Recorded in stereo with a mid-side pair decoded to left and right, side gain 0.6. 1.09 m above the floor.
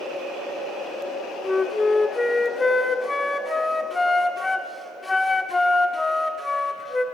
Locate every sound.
1.4 s a flute: 20° left, 1.3 m